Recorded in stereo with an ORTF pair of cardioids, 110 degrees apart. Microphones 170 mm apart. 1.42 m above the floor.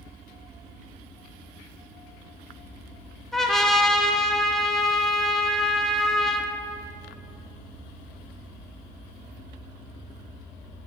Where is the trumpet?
Straight ahead, 0.5 m.